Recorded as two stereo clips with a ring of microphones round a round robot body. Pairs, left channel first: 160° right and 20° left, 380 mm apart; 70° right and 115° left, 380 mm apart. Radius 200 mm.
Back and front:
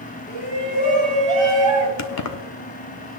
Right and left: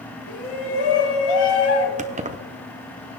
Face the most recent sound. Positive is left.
turn(degrees=180)